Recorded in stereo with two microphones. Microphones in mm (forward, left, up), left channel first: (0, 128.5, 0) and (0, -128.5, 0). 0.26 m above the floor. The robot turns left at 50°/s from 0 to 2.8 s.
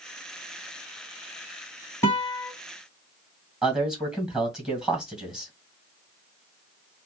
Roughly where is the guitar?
Centre.